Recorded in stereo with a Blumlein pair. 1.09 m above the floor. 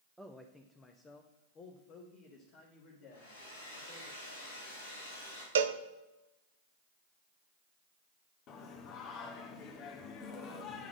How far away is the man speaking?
About 0.6 m.